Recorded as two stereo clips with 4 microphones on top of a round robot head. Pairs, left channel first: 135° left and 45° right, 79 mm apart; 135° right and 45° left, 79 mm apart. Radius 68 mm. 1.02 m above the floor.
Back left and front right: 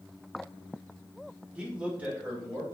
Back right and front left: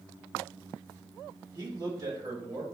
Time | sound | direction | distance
1.6 | a man speaking | 25° left | 1.6 m